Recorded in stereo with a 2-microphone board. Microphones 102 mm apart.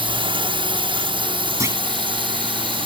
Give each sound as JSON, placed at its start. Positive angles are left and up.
{"t": 0.0, "sound": "a drone", "side_deg": -60}
{"t": 1.6, "sound": "a clunk", "side_deg": -30}